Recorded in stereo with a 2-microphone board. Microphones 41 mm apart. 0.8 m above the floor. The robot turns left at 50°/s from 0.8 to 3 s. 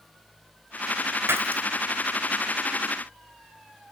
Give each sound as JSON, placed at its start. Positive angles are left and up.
{"t": 1.3, "sound": "breaking glass", "side_deg": -85, "distance_m": 2.0}